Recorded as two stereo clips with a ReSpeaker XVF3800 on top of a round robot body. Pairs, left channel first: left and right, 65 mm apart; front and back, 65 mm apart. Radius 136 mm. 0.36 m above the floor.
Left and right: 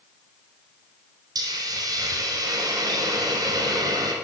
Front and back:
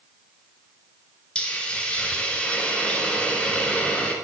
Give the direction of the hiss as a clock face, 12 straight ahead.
2 o'clock.